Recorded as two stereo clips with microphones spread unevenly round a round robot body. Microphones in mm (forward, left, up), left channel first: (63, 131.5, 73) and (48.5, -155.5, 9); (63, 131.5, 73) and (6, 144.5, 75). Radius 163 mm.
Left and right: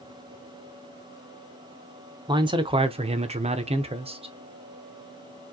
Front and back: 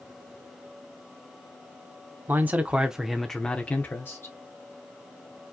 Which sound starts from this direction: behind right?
A man speaking, at 2.3 s.